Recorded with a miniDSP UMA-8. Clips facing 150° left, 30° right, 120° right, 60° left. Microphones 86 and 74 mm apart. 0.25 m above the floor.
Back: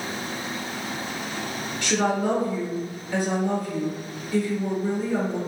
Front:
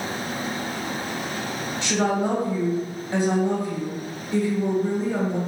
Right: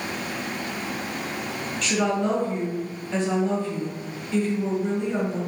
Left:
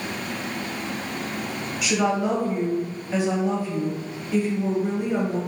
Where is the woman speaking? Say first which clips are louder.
Even, left 1 dB; 10° right, 1.1 m.